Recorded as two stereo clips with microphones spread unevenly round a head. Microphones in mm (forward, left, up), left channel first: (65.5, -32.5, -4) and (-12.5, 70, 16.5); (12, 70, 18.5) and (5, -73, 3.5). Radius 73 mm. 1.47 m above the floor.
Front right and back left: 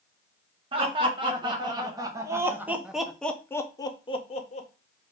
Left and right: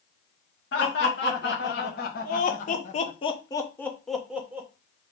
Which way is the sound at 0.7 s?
80° left.